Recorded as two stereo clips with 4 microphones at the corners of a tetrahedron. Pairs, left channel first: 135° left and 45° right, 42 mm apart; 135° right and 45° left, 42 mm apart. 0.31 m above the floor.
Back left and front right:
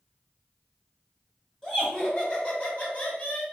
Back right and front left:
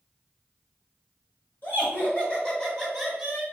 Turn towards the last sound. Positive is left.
turn(degrees=110)